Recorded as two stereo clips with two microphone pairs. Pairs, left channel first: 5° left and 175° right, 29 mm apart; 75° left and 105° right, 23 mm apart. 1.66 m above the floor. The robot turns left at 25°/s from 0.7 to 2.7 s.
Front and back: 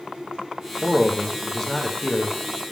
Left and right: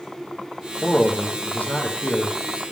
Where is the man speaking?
105° left, 1.0 m; by 2.4 s 65° left, 1.0 m.